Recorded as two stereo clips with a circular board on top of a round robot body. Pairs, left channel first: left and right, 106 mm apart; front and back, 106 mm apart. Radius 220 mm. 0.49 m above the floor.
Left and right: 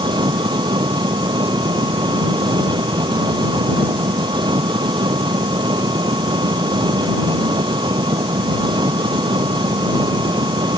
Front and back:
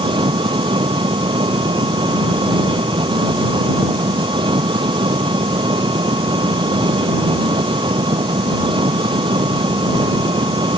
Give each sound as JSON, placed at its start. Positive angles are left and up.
{"t": 0.0, "sound": "an engine running", "azimuth_deg": -135}